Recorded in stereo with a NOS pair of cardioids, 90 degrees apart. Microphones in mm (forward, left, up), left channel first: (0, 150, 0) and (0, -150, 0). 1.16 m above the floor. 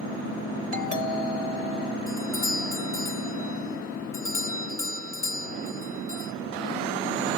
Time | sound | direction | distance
0.7 | a doorbell | 25° right | 3 m
2.1 | a doorbell | 10° left | 2.5 m